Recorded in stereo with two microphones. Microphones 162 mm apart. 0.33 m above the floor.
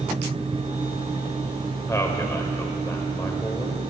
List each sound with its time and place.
1.9 s a man speaking: 20° left (ahead or behind), 1.3 m